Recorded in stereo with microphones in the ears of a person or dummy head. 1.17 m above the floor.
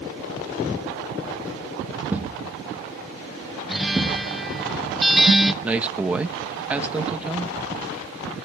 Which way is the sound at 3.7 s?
Centre (ahead or behind).